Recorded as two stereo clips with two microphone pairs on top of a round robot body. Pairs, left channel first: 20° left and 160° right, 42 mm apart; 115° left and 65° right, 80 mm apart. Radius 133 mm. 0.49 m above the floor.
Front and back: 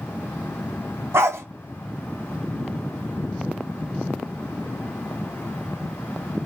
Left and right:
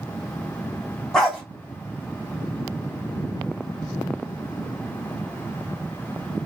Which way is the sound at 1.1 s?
160° right.